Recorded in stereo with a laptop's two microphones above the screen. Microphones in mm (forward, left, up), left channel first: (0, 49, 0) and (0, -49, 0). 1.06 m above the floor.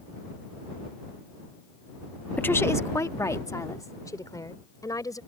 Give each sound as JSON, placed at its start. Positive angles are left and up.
{"t": 2.4, "sound": "a woman speaking", "side_deg": 15}